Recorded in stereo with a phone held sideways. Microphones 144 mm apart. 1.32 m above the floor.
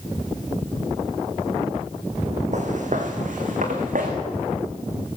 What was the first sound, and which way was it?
Footsteps, 55° right (ahead or behind).